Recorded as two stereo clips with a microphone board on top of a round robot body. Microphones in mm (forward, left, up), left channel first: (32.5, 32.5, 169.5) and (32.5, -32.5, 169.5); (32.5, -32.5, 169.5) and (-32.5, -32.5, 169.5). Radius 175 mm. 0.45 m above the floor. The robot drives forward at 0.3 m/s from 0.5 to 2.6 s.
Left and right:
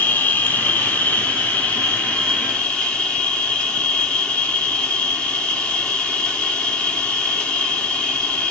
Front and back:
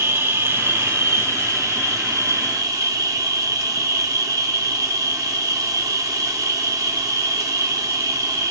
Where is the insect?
145° left, 1.2 m; by 8.5 s 160° left, 1.6 m.